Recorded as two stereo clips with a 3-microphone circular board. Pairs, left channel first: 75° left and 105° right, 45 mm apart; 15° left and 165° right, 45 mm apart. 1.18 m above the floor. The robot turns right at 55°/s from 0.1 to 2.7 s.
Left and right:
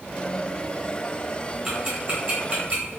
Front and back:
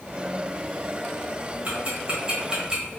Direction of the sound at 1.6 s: 170° right.